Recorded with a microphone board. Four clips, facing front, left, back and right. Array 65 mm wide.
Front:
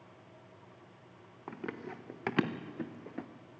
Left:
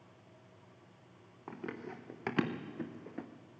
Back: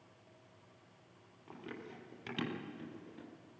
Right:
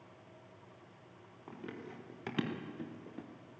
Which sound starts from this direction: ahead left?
Running footsteps, at 1.5 s.